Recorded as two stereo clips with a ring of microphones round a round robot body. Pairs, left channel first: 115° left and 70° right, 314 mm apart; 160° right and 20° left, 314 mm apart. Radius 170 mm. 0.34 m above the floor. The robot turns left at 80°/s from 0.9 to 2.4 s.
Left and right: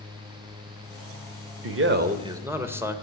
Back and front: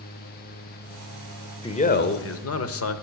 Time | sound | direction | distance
1.6 | a man speaking | 85° right | 1.1 m